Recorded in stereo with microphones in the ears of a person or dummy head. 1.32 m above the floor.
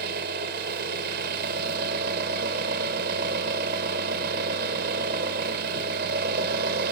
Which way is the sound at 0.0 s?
50° right (ahead or behind).